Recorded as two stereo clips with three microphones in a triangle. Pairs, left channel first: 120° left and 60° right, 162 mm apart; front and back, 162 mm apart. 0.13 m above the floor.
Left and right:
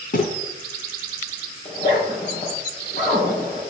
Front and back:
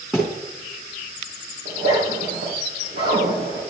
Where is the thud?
90° left, 3.5 m.